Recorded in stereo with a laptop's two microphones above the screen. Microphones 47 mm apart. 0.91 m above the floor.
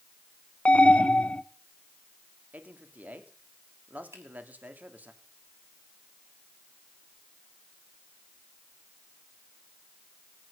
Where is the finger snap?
70° right (ahead or behind), 6 m.